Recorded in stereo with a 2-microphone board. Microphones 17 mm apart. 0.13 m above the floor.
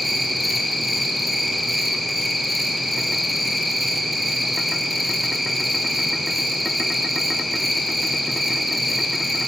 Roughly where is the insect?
Centre.